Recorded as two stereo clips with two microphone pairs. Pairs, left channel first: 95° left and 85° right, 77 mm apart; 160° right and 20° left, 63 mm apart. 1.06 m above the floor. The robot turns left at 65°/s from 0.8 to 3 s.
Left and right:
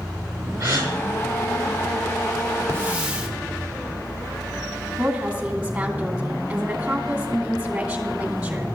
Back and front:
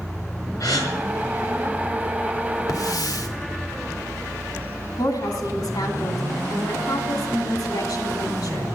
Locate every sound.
0.6 s a gasp: 130° right, 5.5 m; by 0.9 s 140° right, 5.5 m
2.7 s a hiss: 145° right, 1.6 m; by 3.3 s 165° right, 1.6 m
5.0 s a woman speaking: 165° right, 2.5 m